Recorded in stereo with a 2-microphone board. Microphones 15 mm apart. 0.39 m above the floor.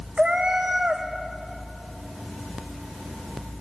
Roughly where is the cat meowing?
Right.